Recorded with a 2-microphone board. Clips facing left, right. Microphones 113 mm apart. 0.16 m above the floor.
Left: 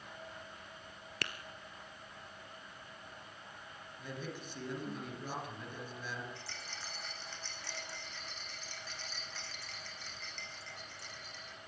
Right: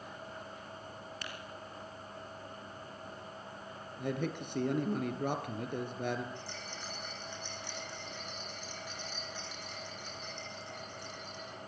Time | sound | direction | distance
1.2 | tapping | 70° left (ahead or behind) | 1.5 m
4.0 | a man speaking | 60° right (ahead or behind) | 2.5 m
6.3 | a rattle | 15° right (ahead or behind) | 4.5 m